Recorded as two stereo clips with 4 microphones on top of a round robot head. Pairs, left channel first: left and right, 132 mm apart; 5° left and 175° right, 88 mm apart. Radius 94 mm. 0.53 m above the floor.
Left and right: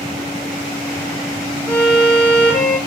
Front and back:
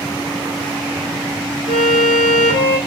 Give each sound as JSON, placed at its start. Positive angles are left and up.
{"t": 1.7, "sound": "a violin", "azimuth_deg": 15, "distance_m": 8.5}